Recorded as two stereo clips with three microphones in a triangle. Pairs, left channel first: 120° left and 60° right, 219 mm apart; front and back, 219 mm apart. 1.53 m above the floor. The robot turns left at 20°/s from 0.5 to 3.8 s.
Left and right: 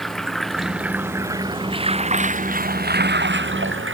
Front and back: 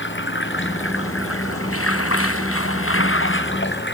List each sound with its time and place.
0.0 s running water: 30° left; by 3.9 s 35° right